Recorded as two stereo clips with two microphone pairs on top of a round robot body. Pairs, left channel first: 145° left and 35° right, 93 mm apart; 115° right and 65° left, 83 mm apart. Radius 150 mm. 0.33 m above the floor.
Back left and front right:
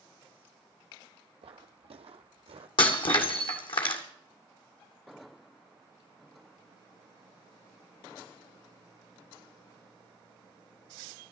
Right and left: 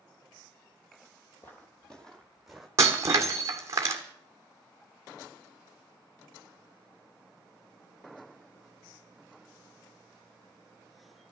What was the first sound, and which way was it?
Footsteps, 55° right.